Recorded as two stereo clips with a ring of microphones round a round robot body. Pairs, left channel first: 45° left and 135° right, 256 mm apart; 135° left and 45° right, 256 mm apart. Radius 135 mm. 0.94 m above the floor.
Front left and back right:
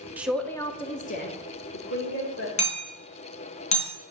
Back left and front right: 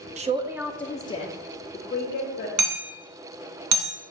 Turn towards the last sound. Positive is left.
turn(degrees=-20)